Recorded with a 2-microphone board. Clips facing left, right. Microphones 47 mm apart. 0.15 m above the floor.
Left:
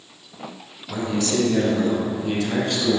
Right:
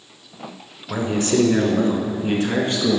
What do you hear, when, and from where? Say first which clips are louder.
0.9 s a man speaking: right 3 dB; 35° right (ahead or behind), 1.5 m; by 3.0 s 30° right (ahead or behind), 1.8 m